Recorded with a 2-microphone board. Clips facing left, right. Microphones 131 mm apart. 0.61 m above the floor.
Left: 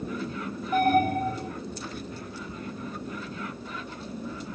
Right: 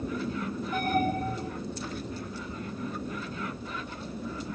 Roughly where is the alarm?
Left.